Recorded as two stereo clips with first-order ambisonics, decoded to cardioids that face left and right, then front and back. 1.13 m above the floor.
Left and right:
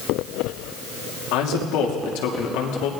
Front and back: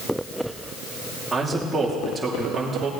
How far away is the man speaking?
About 2.5 m.